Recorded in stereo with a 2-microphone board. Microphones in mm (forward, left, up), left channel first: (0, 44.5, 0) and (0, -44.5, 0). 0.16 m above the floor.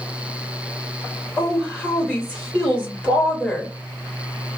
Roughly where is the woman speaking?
Centre.